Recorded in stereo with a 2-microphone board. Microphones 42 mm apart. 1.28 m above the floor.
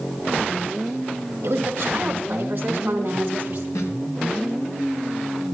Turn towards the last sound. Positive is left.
turn(degrees=80)